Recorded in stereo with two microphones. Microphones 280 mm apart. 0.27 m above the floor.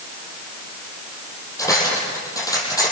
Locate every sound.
1.6 s cutlery clinking: 10° left (ahead or behind), 5.5 m